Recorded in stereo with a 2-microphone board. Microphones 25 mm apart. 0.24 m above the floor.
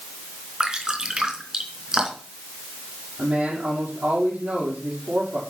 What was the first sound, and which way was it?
Dripping, 30° right (ahead or behind).